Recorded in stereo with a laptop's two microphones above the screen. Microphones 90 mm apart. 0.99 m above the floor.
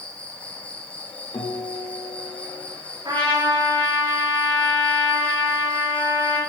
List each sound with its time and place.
0.0 s an insect: 15° left (ahead or behind), 1.3 m
1.3 s a guitar: 80° left, 1.8 m
3.0 s a trumpet: 75° right (ahead or behind), 3.5 m